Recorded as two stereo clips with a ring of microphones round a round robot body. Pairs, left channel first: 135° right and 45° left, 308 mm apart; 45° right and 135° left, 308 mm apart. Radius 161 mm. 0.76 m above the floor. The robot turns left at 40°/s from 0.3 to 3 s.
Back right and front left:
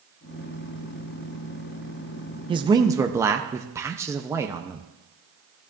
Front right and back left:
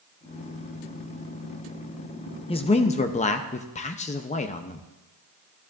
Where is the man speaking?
5° right, 0.6 m; by 4.8 s 25° right, 0.6 m.